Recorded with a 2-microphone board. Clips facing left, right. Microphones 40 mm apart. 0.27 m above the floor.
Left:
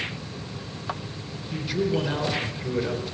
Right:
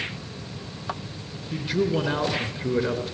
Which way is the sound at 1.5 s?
50° right (ahead or behind).